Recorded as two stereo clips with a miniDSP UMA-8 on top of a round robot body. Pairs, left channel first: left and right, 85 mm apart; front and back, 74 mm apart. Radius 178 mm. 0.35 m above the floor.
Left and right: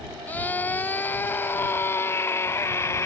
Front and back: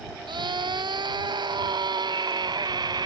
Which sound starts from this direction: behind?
A scream, at 0.3 s.